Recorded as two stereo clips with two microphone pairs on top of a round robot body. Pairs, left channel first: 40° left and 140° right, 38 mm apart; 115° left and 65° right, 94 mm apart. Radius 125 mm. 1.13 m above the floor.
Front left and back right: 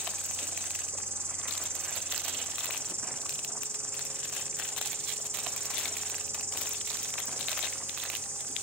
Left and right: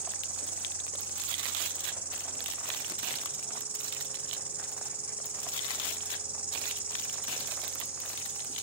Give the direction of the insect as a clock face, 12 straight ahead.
4 o'clock.